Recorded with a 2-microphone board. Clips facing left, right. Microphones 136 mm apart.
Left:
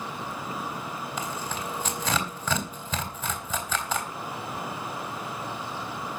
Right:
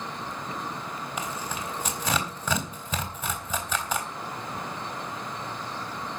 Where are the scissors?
No scissors in this recording.